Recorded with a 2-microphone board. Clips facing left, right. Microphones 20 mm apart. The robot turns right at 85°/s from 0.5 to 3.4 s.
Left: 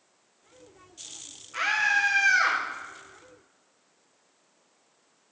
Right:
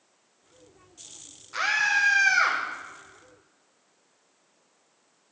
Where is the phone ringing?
No phone ringing in this recording.